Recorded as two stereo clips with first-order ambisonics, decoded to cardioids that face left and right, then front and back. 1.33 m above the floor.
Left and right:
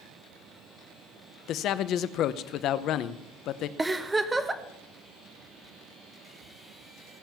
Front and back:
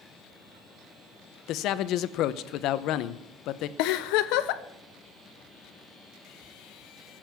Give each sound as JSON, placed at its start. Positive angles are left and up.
{"t": 1.5, "sound": "a man speaking", "azimuth_deg": 45, "distance_m": 0.7}
{"t": 3.8, "sound": "a giggle", "azimuth_deg": -10, "distance_m": 0.8}